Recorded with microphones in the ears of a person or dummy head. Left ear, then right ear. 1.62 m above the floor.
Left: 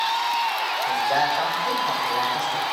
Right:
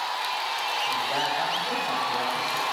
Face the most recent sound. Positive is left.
turn(degrees=55)  # may be behind; listen again after turning